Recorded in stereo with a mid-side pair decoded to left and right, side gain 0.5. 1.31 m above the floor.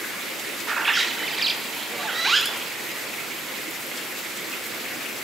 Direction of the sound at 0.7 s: 20° right.